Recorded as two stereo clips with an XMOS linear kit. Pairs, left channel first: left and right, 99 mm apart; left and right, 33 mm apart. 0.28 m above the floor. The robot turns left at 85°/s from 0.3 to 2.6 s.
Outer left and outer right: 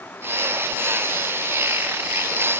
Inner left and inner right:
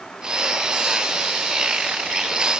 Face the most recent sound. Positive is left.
No sound to turn to.